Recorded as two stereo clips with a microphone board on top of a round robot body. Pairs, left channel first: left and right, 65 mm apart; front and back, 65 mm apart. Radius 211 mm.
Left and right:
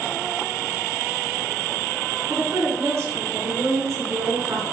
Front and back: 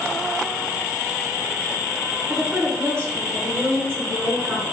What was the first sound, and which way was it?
A woman speaking, 135° right.